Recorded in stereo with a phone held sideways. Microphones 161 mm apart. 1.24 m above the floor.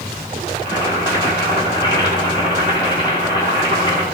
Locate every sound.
0.6 s boiling: 30° left (ahead or behind), 6.5 m